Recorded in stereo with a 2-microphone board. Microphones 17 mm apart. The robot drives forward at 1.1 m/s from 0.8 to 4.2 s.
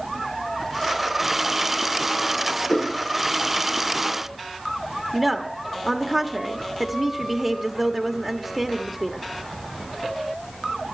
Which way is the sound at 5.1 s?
15° right (ahead or behind).